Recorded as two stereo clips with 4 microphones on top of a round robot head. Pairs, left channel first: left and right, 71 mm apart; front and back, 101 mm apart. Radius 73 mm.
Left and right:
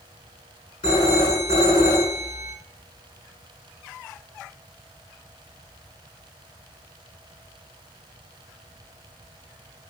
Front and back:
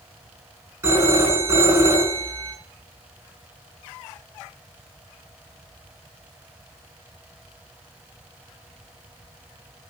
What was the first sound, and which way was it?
A phone ringing, 120° left.